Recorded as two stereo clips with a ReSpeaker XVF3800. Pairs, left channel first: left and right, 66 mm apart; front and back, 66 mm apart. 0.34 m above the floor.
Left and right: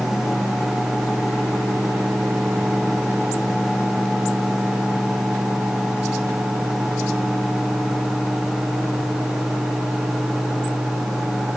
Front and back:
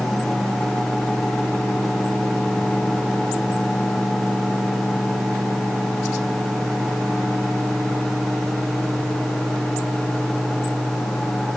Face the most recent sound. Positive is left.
No sound to turn to.